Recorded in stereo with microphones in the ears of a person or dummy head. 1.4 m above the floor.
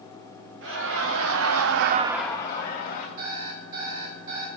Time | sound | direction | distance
0.6 | laughter | 70° right (ahead or behind) | 2 m
3.2 | an alarm clock | 50° right (ahead or behind) | 4 m